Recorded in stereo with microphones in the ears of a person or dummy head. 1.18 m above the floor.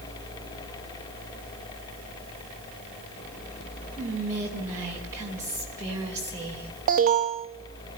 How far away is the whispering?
About 4 m.